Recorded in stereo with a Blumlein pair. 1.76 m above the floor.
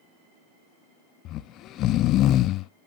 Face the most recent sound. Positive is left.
turn(degrees=35)